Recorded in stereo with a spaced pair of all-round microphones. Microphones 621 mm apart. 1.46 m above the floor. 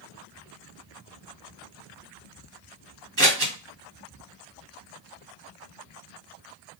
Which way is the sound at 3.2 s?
30° right (ahead or behind).